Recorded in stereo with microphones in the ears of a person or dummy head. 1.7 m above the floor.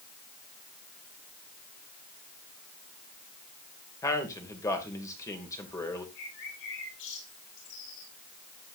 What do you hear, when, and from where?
4.0 s a man speaking: 15° left (ahead or behind), 2.5 m
6.2 s a bird: 75° left (ahead or behind), 7.5 m